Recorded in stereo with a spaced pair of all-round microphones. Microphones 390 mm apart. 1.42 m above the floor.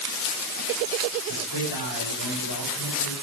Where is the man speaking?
75° left (ahead or behind), 7 m.